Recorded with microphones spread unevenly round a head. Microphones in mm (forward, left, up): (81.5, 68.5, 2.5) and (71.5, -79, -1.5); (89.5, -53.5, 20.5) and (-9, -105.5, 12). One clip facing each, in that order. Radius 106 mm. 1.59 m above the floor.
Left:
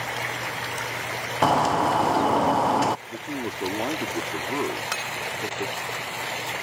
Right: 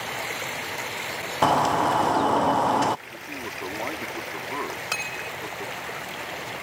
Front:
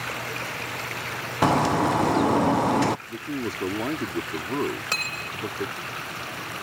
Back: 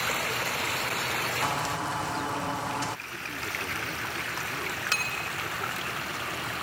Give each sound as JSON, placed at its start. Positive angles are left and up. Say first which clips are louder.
{"t": 1.4, "sound": "a bird", "louder": "even, front 13 dB", "azimuth_deg": 0}
{"t": 3.1, "sound": "a man speaking", "louder": "left 6 dB, front 8 dB", "azimuth_deg": 30}
{"t": 4.9, "sound": "cutlery clinking", "louder": "left 2 dB, even", "azimuth_deg": -10}